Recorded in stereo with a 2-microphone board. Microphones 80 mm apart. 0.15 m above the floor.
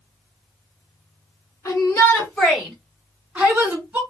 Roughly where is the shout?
Left.